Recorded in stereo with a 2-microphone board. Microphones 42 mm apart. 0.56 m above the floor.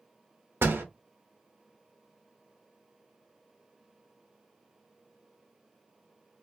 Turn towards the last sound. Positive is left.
turn(degrees=-65)  # may be behind; listen again after turning